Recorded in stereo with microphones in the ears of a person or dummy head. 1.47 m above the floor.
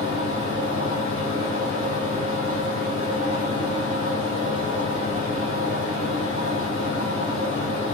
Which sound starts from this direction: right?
A fan, at 0.0 s.